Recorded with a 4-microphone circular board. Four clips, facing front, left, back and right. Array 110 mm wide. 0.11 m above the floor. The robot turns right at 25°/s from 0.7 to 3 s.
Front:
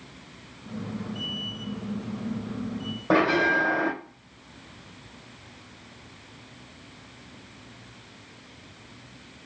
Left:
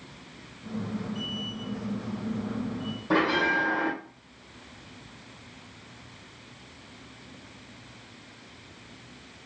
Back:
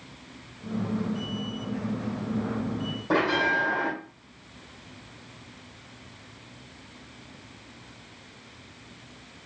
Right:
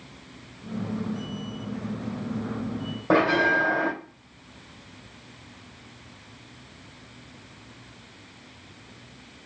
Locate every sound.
3.1 s a bell: 65° right, 2 m